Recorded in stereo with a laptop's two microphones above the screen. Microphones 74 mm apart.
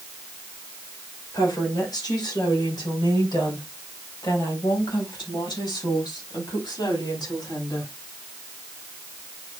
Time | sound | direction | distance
1.3 | a woman speaking | 60° left (ahead or behind) | 4 m